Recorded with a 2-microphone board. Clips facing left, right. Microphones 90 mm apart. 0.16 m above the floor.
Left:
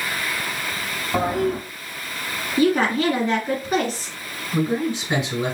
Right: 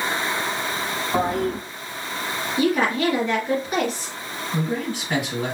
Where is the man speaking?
20° left (ahead or behind), 2.5 m.